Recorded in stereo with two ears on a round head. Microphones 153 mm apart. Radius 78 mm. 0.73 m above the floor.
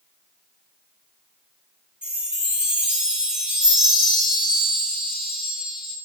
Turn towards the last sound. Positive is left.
turn(degrees=-5)  # may be behind; listen again after turning